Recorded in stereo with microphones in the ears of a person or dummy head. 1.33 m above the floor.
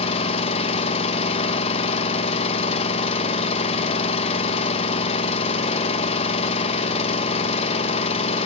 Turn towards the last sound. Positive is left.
turn(degrees=35)  # may be behind; listen again after turning